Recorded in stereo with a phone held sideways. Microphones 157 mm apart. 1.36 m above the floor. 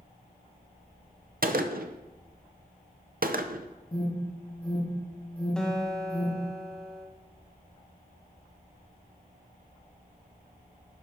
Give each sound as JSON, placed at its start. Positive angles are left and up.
{"t": 1.4, "sound": "a gunshot", "side_deg": -70, "distance_m": 0.7}
{"t": 3.9, "sound": "an alarm", "side_deg": 35, "distance_m": 2.0}
{"t": 5.6, "sound": "a guitar", "side_deg": 5, "distance_m": 1.5}